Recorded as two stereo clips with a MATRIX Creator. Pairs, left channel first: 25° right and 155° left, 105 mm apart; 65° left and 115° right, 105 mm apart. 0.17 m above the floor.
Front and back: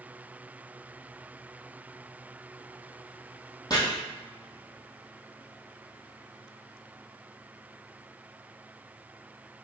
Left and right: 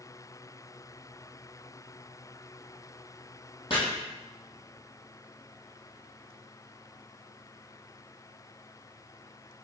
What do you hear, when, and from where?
3.7 s chopping: 25° left, 1.7 m